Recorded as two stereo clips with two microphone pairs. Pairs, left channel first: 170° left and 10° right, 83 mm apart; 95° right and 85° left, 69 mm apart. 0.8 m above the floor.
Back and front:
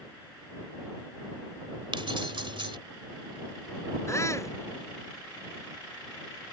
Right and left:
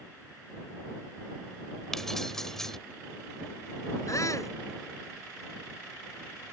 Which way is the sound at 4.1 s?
135° right.